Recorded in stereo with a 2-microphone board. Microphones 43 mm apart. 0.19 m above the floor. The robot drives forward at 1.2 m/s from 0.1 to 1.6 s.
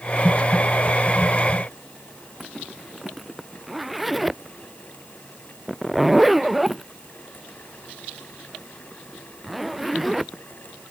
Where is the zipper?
Centre (ahead or behind).